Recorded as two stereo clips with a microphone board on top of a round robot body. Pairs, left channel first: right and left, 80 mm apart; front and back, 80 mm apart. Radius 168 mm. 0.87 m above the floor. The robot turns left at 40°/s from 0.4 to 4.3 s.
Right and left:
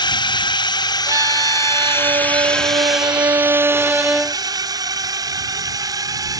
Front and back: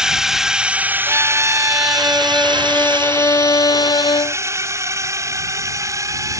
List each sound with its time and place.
0.0 s a drone: 100° right; by 6.4 s 130° left
1.1 s a violin: 135° left; by 4.4 s 5° left